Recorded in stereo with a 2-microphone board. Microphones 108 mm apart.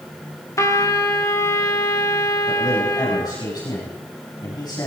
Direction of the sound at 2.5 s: 40° left (ahead or behind).